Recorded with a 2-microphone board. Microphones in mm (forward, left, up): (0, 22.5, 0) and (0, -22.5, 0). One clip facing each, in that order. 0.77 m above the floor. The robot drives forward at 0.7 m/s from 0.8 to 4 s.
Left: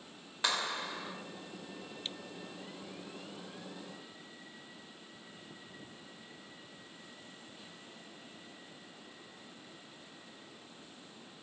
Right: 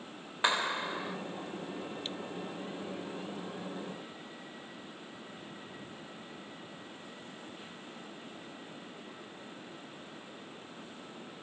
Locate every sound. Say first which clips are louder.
0.4 s a clap: right 4 dB; 20° right (ahead or behind), 3 m